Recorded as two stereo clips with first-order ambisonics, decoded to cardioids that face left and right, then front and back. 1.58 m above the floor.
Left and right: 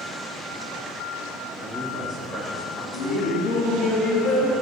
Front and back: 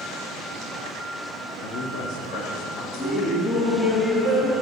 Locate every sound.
1.6 s a man speaking: 25° left, 1.7 m
2.9 s laughter: 80° left, 3 m